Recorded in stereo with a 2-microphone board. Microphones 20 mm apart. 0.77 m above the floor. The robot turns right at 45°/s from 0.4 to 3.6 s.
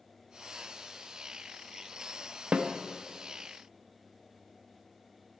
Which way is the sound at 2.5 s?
65° right (ahead or behind).